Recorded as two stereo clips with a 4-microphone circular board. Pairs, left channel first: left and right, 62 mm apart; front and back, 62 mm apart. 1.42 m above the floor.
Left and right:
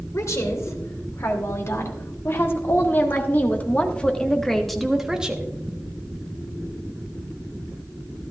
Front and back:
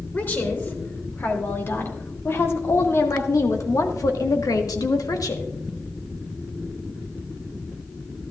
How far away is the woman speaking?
About 3.5 m.